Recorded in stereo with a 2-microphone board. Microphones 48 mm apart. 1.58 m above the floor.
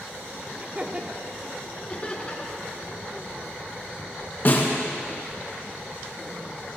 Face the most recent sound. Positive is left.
turn(degrees=50)  # may be behind; listen again after turning